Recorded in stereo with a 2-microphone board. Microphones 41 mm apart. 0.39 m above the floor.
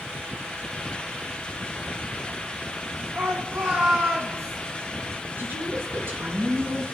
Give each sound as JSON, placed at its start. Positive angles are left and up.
{"t": 3.1, "sound": "a shout", "side_deg": -55, "distance_m": 3.0}
{"t": 5.4, "sound": "a woman speaking", "side_deg": -65, "distance_m": 4.0}